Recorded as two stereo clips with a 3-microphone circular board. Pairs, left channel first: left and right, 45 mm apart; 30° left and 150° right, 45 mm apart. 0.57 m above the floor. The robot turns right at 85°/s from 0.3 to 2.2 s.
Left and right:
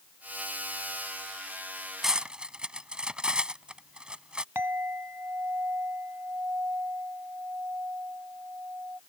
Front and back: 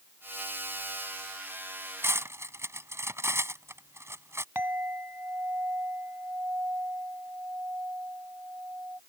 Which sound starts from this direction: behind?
Cutlery clinking, at 2.0 s.